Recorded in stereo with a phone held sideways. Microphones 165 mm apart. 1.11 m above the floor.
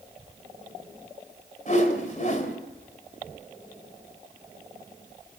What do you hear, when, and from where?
1.7 s a whoosh: 50° left (ahead or behind), 2.5 m